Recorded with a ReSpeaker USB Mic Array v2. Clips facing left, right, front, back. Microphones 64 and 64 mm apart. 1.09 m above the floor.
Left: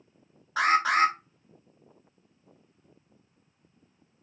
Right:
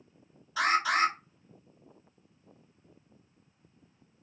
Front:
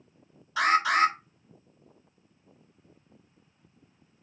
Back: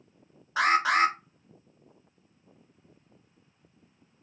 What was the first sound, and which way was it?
An alarm, 125° left.